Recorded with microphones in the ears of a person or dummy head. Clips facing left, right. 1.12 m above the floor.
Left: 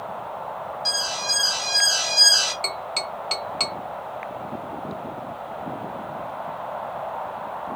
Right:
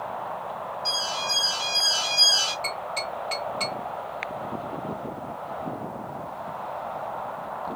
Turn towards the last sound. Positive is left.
turn(degrees=35)  # may be behind; listen again after turning